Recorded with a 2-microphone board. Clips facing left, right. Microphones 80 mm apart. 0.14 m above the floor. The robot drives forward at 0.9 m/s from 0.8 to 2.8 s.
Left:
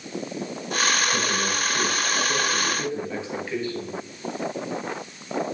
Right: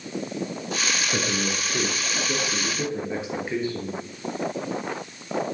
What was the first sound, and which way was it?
A man speaking, 35° right (ahead or behind).